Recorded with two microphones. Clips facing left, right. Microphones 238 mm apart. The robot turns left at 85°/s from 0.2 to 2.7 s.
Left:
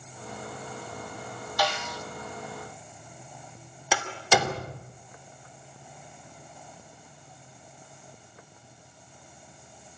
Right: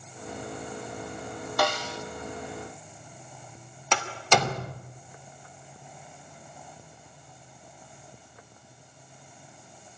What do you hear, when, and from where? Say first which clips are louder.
1.6 s a snare drum: right 2 dB; 125° right, 1.3 m; by 2.0 s 160° right, 1.3 m
3.9 s a door slam: even; 5° left (ahead or behind), 2 m